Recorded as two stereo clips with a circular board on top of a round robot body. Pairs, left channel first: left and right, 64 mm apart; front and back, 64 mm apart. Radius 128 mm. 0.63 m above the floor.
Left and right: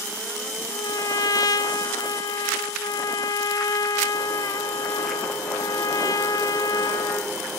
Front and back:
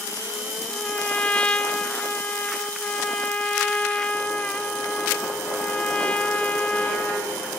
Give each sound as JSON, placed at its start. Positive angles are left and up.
{"t": 0.7, "sound": "a trumpet", "azimuth_deg": 75, "distance_m": 0.7}